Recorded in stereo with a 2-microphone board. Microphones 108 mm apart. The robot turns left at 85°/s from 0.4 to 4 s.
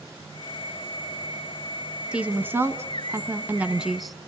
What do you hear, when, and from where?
2.1 s a woman speaking: 10° right (ahead or behind), 1.1 m; by 4.2 s centre (ahead or behind), 1.1 m